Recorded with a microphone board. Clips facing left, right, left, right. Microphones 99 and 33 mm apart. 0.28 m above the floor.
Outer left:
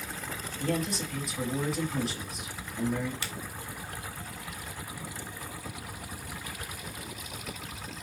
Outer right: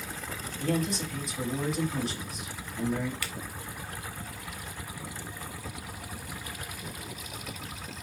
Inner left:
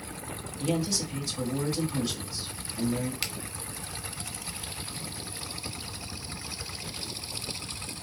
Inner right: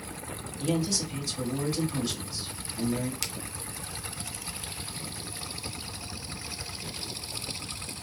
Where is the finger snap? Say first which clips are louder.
Even, inner left 2 dB; 25° left (ahead or behind), 0.8 m.